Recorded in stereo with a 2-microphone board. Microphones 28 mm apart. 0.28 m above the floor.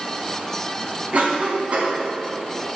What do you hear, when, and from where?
1.1 s a cough: 50° right (ahead or behind), 3 m